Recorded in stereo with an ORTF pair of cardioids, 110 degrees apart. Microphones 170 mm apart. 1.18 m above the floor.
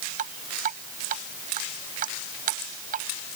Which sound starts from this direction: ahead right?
Dripping, at 0.2 s.